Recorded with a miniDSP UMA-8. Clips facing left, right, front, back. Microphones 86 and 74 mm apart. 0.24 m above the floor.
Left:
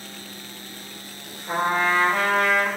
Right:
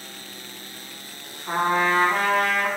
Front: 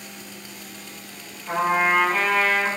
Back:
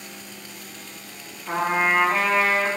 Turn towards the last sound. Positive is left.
turn(degrees=-110)